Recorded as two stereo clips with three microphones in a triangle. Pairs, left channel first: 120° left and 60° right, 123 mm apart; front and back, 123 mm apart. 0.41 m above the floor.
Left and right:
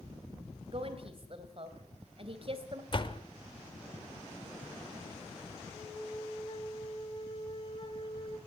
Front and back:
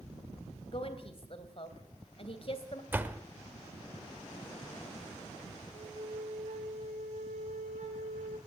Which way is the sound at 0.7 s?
30° right.